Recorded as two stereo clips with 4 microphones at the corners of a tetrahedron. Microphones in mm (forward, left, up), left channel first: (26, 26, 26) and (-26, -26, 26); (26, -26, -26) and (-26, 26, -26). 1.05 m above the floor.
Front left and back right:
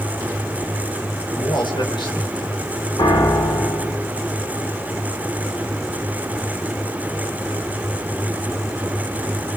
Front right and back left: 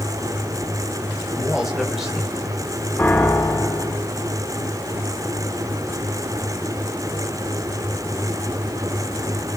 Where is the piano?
30° left, 5.5 m.